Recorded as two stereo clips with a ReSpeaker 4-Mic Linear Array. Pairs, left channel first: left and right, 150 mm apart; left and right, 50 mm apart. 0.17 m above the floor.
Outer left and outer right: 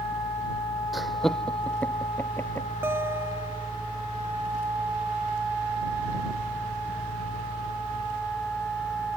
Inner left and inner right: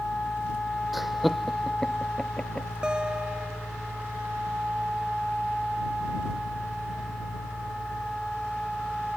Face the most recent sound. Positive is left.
turn(degrees=-15)  # may be behind; listen again after turning